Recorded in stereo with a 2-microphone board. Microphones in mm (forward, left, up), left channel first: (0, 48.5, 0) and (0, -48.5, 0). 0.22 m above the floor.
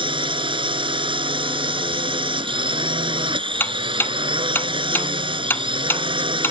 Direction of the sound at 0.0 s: 60° right (ahead or behind).